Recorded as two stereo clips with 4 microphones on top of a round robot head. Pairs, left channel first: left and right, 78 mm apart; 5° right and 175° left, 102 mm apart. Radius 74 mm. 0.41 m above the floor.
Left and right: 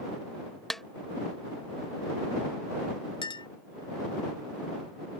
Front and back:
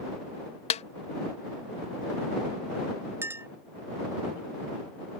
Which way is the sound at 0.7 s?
5° left.